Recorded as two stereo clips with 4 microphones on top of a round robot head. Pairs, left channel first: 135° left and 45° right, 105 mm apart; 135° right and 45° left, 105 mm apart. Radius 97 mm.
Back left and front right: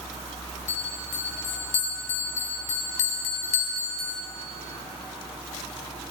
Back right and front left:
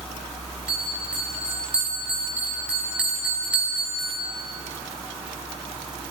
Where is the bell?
125° left, 1.8 m.